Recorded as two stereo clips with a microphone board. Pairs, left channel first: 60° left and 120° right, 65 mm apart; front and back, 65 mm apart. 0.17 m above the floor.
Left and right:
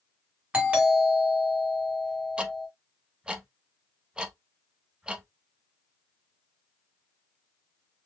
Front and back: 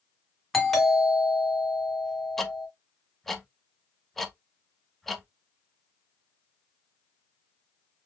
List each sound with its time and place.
0.5 s a doorbell: 80° right, 1.5 m
2.4 s ticking: 75° right, 0.6 m